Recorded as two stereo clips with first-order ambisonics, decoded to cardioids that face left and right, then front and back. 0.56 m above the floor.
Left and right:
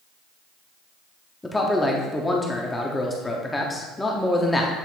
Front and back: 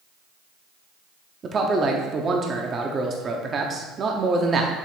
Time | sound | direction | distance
1.4 | a man speaking | 160° left | 0.6 m